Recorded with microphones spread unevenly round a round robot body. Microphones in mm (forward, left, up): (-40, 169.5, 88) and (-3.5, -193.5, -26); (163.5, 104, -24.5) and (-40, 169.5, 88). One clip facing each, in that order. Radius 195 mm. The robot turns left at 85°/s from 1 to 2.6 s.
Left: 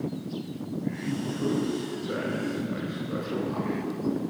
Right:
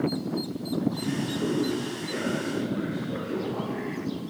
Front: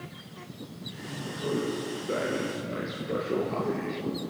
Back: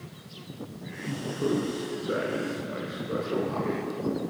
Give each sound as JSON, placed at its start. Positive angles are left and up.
{"t": 1.1, "sound": "a man speaking", "azimuth_deg": -175, "distance_m": 5.0}